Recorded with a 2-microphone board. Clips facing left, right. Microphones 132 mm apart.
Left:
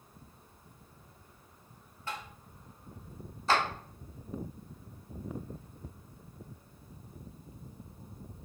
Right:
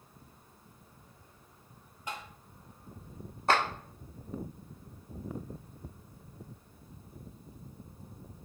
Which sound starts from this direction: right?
A clap, at 3.5 s.